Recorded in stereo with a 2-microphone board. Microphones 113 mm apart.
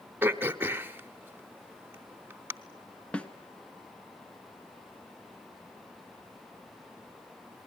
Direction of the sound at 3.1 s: 10° left (ahead or behind).